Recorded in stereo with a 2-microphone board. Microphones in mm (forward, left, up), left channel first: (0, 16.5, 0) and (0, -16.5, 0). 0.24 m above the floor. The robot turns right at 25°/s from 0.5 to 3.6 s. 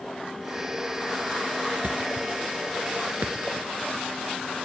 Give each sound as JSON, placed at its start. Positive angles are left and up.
{"t": 1.8, "sound": "a thud", "side_deg": -65, "distance_m": 1.0}